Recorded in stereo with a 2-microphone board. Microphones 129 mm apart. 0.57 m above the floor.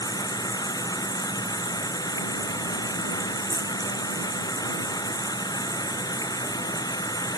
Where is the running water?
30° left (ahead or behind).